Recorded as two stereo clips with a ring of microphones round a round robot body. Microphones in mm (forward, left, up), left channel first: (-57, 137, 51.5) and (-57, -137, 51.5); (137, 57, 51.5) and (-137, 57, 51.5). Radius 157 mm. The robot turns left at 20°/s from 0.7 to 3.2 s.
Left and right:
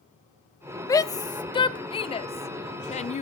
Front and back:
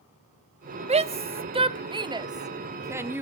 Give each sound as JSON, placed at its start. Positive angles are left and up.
{"t": 0.9, "sound": "a shout", "azimuth_deg": 155, "distance_m": 0.8}